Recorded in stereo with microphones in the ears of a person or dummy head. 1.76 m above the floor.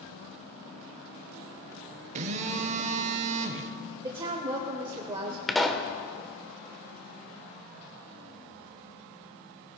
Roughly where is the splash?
I don't hear a splash.